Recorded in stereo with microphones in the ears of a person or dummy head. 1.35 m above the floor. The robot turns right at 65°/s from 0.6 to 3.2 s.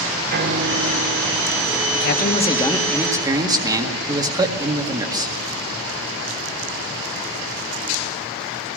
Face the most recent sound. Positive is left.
turn(degrees=-160)